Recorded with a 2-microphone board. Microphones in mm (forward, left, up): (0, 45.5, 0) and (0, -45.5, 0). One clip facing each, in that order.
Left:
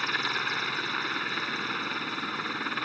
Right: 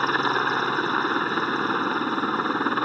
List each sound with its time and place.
0.0 s a helicopter: 45° right (ahead or behind)